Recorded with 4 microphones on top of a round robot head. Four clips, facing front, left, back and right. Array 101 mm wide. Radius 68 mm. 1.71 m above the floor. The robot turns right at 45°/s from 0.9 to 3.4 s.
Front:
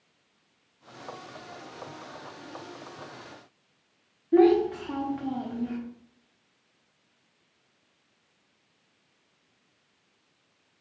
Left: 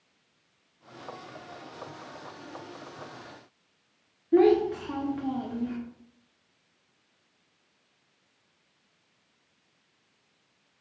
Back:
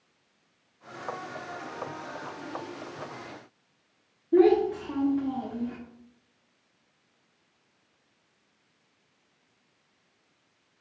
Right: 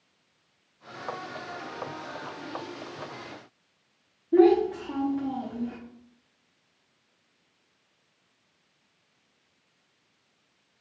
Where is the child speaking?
45° left, 0.6 m.